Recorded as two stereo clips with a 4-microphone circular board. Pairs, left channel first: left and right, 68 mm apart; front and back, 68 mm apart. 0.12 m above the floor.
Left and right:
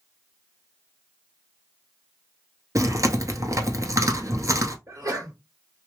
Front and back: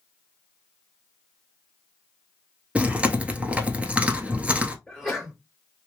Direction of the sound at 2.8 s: 110° right.